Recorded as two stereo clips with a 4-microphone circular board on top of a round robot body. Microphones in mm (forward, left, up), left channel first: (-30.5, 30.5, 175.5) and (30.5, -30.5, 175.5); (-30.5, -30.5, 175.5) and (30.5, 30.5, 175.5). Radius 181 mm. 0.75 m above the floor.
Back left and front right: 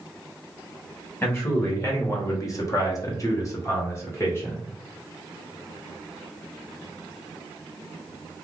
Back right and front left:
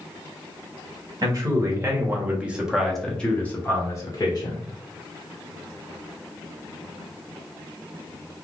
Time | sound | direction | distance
1.2 | a man speaking | 80° left | 1.4 m